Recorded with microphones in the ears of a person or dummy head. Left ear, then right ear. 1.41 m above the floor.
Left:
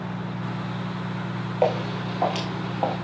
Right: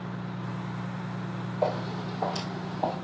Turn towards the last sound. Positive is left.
turn(degrees=30)  # may be behind; listen again after turning